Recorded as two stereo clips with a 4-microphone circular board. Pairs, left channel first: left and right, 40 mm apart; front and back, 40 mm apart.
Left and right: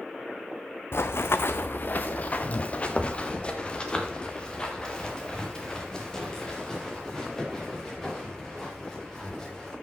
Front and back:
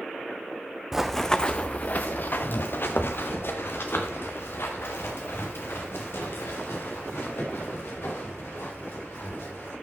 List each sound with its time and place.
0.9 s running footsteps: 100° left, 0.6 m; by 9.7 s 10° left, 6 m